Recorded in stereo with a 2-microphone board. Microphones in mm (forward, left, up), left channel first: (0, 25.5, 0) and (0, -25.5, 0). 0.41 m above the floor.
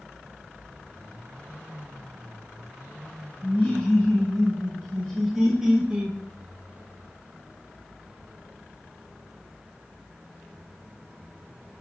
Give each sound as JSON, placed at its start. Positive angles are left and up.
{"t": 3.4, "sound": "laughter", "side_deg": 20, "distance_m": 1.9}